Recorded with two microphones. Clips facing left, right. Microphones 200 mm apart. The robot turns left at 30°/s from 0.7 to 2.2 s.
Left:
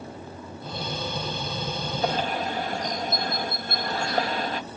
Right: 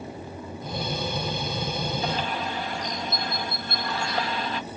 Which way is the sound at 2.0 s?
50° left (ahead or behind).